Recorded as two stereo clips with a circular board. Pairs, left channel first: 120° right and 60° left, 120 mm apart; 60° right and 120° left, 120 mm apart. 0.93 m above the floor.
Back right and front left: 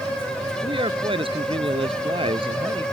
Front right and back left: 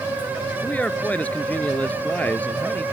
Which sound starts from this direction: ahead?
A man speaking, at 0.6 s.